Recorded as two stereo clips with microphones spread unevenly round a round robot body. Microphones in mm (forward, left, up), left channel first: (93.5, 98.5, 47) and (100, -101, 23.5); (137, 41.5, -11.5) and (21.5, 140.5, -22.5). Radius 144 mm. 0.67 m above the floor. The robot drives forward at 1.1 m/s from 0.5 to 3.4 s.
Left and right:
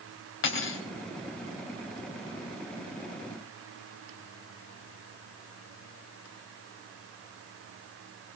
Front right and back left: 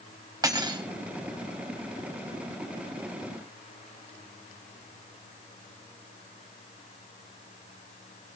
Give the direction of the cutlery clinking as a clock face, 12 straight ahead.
10 o'clock.